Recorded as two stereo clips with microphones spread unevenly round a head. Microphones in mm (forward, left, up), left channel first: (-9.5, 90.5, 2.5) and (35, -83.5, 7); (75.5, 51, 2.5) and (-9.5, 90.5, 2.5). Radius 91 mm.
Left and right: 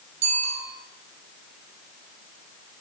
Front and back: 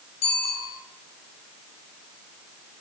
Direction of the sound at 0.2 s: 60° right.